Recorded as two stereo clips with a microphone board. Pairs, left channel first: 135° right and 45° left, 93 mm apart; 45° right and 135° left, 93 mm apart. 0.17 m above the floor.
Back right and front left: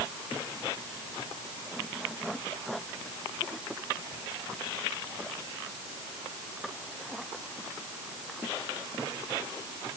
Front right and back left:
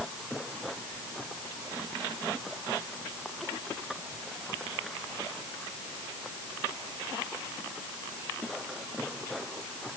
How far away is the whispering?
I don't hear whispering.